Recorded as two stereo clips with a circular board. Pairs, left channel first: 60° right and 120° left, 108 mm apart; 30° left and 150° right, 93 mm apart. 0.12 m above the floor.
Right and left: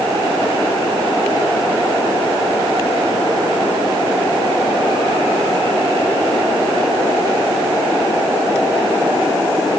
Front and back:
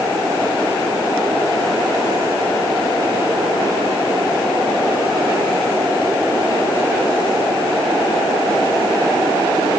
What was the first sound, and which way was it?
Only background noise.